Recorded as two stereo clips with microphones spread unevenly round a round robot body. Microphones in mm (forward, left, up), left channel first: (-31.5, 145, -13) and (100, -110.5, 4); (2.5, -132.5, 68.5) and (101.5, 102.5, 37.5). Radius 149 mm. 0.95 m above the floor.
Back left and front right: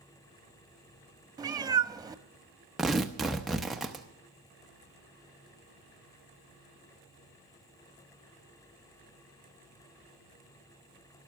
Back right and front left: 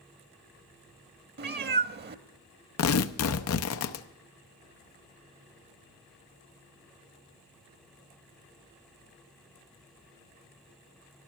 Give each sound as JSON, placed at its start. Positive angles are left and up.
{"t": 1.4, "sound": "a cat meowing", "azimuth_deg": 15, "distance_m": 0.7}
{"t": 2.8, "sound": "tearing paper", "azimuth_deg": -155, "distance_m": 0.6}